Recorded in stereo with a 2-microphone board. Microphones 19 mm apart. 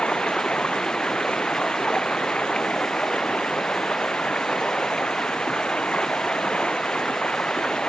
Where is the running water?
75° left (ahead or behind).